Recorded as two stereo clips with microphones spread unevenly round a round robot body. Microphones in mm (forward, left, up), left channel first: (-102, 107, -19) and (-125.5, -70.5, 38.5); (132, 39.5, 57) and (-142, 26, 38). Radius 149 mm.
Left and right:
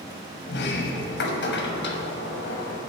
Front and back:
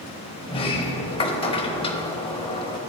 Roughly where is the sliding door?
Left.